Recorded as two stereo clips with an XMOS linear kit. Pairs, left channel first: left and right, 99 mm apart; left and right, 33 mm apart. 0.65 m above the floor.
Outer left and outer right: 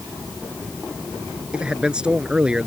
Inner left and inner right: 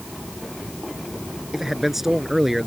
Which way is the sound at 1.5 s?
10° right (ahead or behind).